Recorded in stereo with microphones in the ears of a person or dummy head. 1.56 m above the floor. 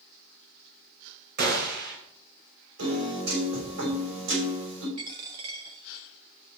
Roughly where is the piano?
Right.